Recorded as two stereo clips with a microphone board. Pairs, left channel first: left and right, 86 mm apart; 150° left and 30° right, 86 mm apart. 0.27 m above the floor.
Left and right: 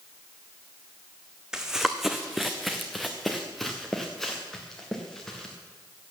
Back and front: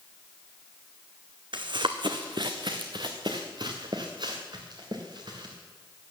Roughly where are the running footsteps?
Ahead.